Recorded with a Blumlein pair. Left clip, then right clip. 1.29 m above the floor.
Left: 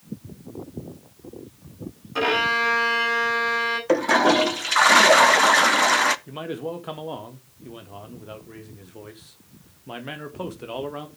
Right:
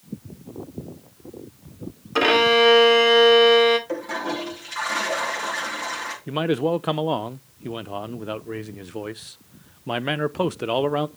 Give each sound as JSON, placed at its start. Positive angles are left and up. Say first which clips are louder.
{"t": 2.1, "sound": "a violin", "louder": "right 5 dB", "azimuth_deg": -70, "distance_m": 2.0}
{"t": 3.9, "sound": "a toilet flushing", "louder": "left 10 dB", "azimuth_deg": 55, "distance_m": 0.6}
{"t": 6.3, "sound": "a man speaking", "louder": "right 9 dB", "azimuth_deg": -65, "distance_m": 0.7}